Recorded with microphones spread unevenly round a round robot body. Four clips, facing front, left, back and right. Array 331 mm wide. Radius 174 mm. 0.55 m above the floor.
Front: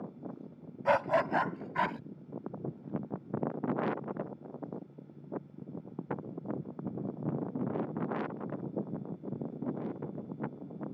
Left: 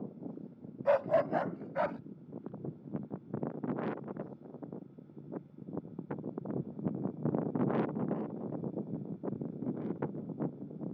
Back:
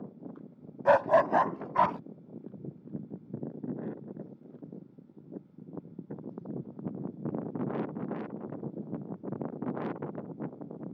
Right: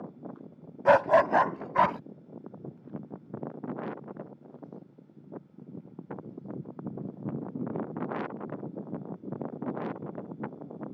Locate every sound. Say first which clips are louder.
0.8 s a dog barking: right 7 dB, back 5 dB; 100° right; by 2.0 s 110° right